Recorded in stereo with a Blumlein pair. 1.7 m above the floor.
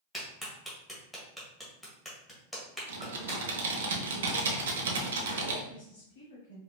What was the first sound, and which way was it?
A clap, 5° left.